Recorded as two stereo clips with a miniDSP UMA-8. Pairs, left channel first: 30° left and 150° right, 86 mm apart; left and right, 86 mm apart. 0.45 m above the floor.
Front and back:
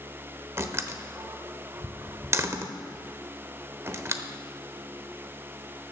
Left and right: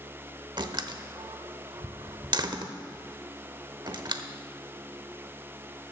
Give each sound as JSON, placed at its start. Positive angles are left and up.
{"t": 0.6, "sound": "a door slam", "azimuth_deg": -100, "distance_m": 0.9}